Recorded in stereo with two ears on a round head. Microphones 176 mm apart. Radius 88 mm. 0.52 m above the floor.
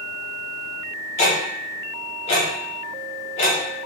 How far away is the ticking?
About 0.7 m.